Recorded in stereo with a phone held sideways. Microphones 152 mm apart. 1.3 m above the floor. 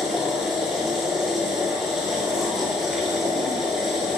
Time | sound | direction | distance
0.0 | a machine running | centre (ahead or behind) | 3 m